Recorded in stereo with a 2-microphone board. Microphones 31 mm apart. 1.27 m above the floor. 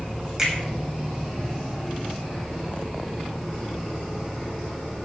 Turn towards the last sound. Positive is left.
turn(degrees=-15)  # may be behind; listen again after turning